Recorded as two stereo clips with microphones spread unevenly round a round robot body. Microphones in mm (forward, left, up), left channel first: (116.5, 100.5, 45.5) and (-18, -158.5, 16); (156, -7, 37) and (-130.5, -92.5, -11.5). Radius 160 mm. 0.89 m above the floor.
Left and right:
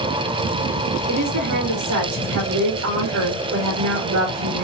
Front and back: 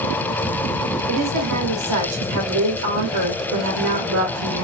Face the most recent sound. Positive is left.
turn(degrees=-145)